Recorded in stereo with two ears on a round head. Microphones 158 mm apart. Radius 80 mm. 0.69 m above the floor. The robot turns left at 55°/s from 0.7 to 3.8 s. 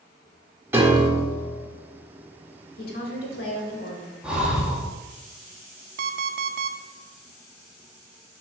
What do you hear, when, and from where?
0.7 s a piano: 15° right, 1.3 m; by 1.6 s 60° right, 1.3 m
2.8 s a woman speaking: 120° left, 1.9 m; by 4.1 s 60° left, 1.9 m
4.2 s breathing: 5° right (ahead or behind), 1.3 m
6.0 s an alarm clock: 55° right (ahead or behind), 0.5 m